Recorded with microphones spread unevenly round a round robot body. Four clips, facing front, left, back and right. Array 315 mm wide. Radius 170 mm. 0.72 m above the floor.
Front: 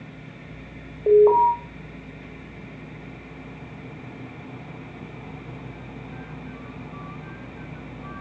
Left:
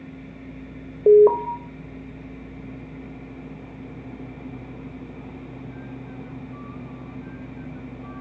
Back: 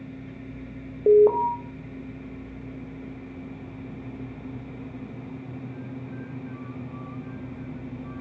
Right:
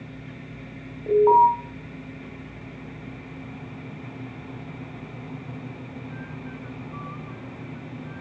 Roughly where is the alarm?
Behind left.